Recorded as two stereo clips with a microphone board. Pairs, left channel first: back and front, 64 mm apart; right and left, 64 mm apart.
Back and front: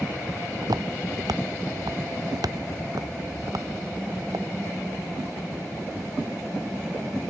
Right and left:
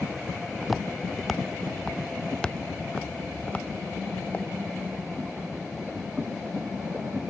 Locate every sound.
0.6 s footsteps: straight ahead; by 4.5 s 25° right